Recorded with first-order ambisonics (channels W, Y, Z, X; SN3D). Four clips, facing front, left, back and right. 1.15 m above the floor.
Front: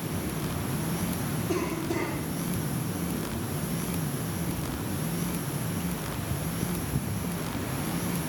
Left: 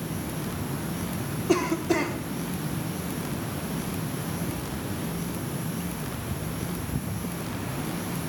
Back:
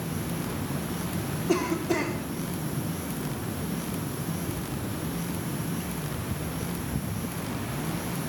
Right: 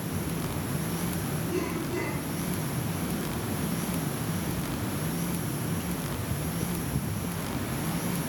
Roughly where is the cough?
Behind left.